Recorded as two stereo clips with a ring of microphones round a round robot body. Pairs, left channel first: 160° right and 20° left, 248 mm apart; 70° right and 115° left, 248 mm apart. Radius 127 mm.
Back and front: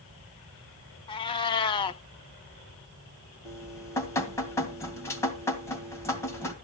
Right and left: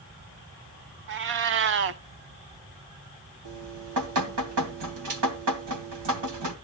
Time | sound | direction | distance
1.1 | a cat meowing | 135° left | 0.5 m
3.5 | dripping | 125° left | 2.5 m